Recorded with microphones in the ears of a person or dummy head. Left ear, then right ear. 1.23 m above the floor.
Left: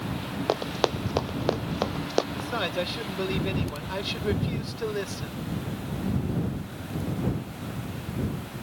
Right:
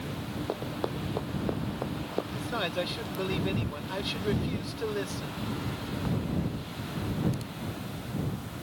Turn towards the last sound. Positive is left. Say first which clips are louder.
# left 3 dB
turn(degrees=0)  # may be behind; listen again after turning